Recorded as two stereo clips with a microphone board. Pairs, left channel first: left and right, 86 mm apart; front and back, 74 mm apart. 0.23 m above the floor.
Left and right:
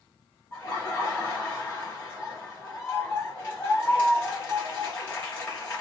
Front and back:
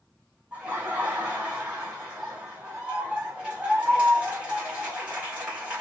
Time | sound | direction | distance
0.5 | laughter | 120° left | 1.4 m